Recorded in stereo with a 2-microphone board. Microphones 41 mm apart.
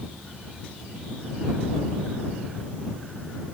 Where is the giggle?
I don't hear a giggle.